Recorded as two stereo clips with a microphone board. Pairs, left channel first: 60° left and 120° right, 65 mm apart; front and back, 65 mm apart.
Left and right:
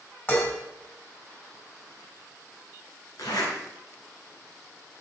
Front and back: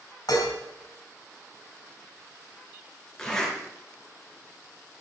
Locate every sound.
0.3 s dishes clattering: straight ahead, 3 m
3.2 s a zipper: 80° left, 4 m